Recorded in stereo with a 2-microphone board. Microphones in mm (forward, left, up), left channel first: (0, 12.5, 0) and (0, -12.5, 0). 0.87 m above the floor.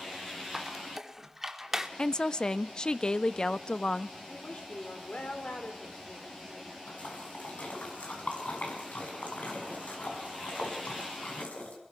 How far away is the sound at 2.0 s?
About 0.6 m.